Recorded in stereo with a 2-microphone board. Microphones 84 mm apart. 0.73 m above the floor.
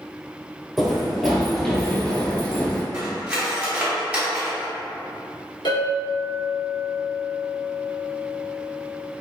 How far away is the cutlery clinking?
About 1.2 m.